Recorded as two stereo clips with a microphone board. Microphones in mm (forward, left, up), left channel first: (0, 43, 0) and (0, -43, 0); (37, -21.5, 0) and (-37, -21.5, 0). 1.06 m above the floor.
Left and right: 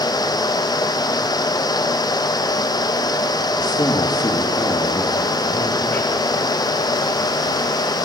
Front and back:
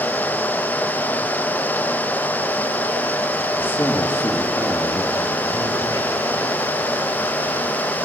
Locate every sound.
3.6 s a man speaking: 60° left, 1.9 m; by 6.2 s 25° left, 3 m